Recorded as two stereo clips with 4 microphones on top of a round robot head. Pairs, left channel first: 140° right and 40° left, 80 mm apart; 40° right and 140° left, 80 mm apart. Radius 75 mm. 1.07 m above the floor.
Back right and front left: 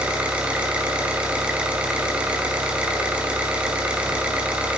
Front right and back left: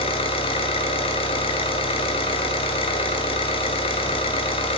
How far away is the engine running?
About 2 m.